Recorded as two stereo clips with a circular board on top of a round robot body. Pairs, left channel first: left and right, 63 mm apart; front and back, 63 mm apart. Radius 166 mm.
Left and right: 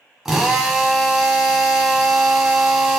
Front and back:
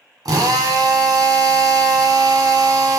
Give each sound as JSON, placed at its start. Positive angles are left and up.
{"t": 0.2, "sound": "a drill", "azimuth_deg": -175, "distance_m": 1.3}